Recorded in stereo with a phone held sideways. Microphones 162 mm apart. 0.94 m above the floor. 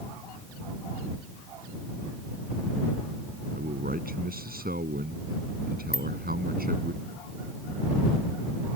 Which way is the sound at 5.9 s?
85° left.